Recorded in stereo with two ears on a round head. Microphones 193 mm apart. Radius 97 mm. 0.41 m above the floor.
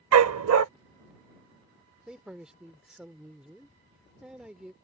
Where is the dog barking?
70° right (ahead or behind).